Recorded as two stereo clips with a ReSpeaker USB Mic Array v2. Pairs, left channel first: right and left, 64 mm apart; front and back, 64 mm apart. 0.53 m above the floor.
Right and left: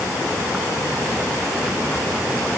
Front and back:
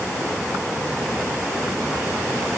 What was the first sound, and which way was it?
Only background noise.